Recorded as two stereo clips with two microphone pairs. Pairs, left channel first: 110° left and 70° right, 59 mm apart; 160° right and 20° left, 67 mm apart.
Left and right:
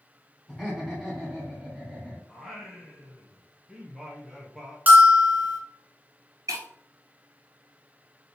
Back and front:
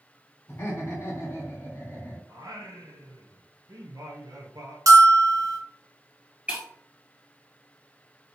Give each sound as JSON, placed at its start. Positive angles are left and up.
{"t": 0.5, "sound": "laughter", "azimuth_deg": -150, "distance_m": 1.3}
{"t": 2.3, "sound": "singing", "azimuth_deg": 15, "distance_m": 1.0}
{"t": 4.9, "sound": "a bell", "azimuth_deg": -10, "distance_m": 1.0}
{"t": 6.5, "sound": "breaking glass", "azimuth_deg": -45, "distance_m": 1.6}